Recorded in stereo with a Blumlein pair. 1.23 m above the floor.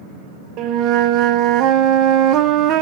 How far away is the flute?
About 0.8 m.